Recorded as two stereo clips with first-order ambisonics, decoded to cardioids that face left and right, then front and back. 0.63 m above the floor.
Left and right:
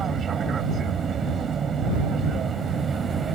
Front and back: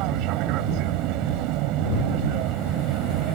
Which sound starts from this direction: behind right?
An aircraft, at 0.0 s.